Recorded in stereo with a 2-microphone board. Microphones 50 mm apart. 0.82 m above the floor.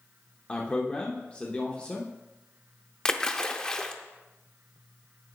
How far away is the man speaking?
About 0.7 m.